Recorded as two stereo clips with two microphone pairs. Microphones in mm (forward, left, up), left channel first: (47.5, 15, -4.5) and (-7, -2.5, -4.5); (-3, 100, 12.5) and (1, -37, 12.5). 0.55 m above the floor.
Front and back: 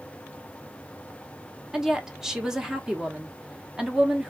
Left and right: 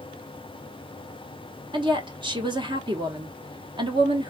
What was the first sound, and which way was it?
A woman speaking, 85° right.